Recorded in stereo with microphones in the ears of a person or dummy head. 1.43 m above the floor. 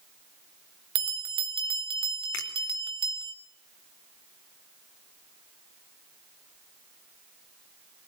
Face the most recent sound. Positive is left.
turn(degrees=75)  # may be behind; listen again after turning